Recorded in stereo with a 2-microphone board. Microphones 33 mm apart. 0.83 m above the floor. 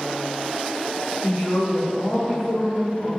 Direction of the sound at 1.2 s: 35° right (ahead or behind).